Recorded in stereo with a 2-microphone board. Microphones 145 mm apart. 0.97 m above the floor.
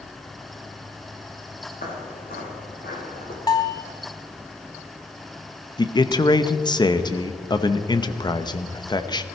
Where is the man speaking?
30° left (ahead or behind), 0.8 m.